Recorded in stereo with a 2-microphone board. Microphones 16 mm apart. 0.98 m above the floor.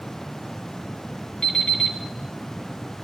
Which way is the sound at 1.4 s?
45° left (ahead or behind).